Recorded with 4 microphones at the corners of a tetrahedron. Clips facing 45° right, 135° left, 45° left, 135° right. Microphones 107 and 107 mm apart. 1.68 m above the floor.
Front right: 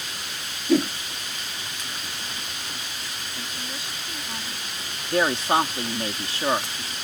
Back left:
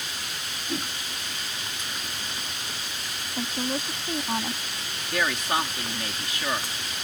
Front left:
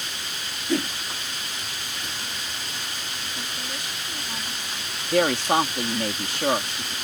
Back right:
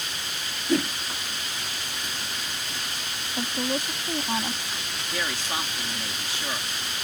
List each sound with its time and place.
0.7 s a whoosh: 50° right
3.4 s a woman speaking: straight behind
5.1 s a woman speaking: 15° left